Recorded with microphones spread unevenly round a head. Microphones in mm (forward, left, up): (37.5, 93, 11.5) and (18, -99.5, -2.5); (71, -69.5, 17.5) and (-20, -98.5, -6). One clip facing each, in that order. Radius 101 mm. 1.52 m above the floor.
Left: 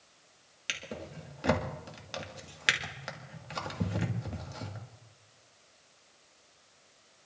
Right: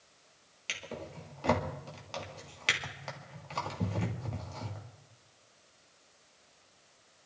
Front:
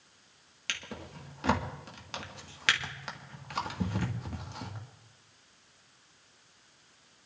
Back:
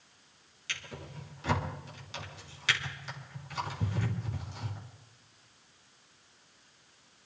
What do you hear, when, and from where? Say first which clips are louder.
0.7 s a drawer: even, front 2 dB; 10° left, 1.8 m